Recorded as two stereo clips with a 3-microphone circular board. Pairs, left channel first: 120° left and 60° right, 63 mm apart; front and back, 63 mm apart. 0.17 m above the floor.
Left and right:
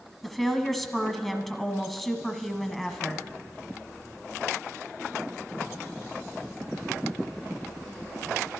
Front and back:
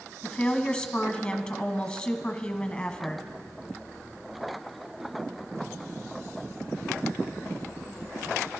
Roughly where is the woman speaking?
Ahead left.